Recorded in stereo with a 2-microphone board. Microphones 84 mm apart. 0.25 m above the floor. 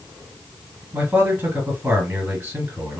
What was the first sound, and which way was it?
A man speaking, 25° right (ahead or behind).